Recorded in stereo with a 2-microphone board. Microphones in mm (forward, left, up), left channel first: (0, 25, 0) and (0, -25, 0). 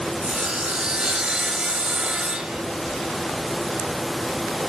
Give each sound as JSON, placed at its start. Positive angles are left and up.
{"t": 0.2, "sound": "sawing", "side_deg": -15, "distance_m": 1.3}